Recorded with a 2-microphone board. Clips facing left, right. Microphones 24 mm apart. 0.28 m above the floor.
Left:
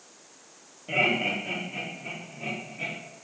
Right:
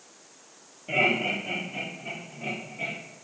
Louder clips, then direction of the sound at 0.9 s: Right 1 dB; centre (ahead or behind).